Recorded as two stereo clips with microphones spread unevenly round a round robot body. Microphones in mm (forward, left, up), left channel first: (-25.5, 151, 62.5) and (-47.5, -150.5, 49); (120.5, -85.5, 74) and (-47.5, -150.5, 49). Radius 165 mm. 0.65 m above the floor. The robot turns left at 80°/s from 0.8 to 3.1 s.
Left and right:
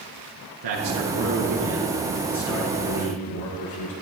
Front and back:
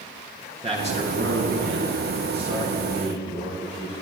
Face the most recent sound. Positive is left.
turn(degrees=75)